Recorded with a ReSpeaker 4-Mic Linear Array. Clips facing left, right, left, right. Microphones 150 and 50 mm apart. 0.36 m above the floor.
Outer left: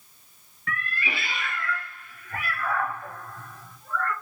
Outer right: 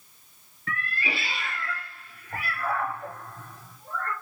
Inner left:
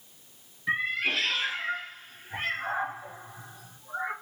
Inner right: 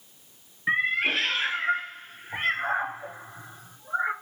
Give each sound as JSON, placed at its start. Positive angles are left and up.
{"t": 0.7, "sound": "a cat meowing", "side_deg": -35, "distance_m": 0.6}